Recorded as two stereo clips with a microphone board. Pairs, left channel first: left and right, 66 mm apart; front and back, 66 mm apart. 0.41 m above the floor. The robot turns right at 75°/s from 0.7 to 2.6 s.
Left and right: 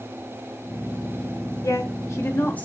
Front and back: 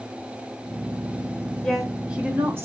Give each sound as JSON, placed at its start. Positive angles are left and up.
{"t": 1.6, "sound": "a woman speaking", "azimuth_deg": 75, "distance_m": 1.8}